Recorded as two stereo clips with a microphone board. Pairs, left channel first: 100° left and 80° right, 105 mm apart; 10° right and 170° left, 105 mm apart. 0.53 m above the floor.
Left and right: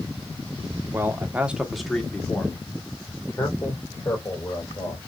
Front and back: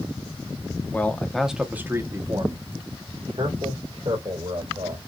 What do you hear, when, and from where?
0.9 s a man speaking: 60° right, 1.0 m; by 5.0 s 155° left, 2.5 m